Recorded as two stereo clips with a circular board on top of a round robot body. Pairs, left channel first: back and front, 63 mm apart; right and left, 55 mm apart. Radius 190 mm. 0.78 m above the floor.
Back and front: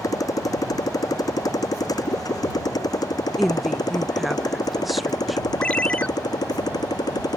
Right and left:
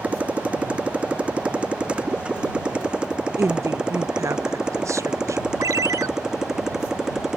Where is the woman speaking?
90° left.